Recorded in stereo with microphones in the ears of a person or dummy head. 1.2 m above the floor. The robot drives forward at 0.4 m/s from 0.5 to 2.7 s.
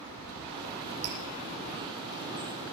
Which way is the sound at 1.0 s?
75° right (ahead or behind).